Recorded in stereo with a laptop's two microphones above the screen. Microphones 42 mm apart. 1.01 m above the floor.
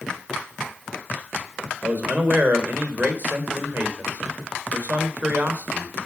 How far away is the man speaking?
About 3.5 m.